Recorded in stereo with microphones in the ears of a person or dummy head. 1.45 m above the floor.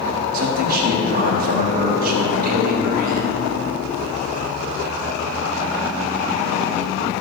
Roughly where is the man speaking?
Right.